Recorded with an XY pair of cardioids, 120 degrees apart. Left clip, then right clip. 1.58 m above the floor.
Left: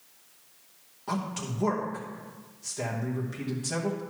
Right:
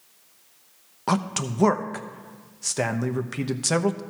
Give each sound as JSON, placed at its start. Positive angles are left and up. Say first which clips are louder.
{"t": 1.1, "sound": "a man speaking", "louder": "right 8 dB", "azimuth_deg": -70, "distance_m": 0.9}